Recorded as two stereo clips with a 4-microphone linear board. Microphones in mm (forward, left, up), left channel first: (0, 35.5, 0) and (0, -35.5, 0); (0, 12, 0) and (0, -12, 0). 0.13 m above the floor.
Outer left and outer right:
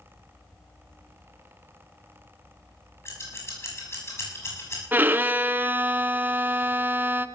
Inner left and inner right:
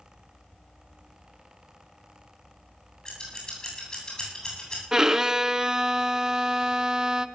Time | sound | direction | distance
3.0 | scissors | 40° left (ahead or behind) | 7.5 m
4.9 | a violin | 25° right (ahead or behind) | 0.6 m